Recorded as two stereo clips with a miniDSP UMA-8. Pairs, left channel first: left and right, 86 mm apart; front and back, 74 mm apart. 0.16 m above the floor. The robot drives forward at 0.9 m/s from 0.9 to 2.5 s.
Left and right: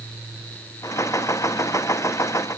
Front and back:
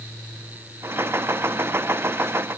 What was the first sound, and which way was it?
Only background noise.